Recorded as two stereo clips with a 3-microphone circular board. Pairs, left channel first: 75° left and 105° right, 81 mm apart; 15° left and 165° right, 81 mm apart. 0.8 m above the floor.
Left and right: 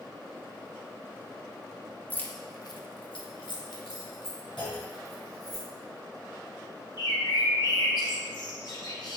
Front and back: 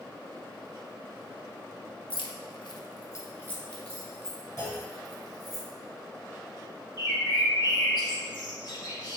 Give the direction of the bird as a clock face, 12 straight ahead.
10 o'clock.